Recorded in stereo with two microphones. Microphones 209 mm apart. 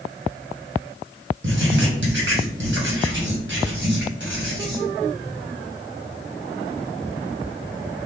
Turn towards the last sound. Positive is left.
turn(degrees=-60)  # may be behind; listen again after turning